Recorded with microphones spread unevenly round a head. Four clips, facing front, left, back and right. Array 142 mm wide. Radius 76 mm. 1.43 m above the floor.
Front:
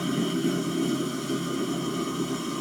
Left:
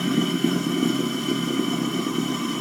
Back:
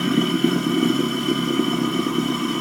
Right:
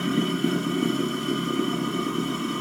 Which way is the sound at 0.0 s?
165° left.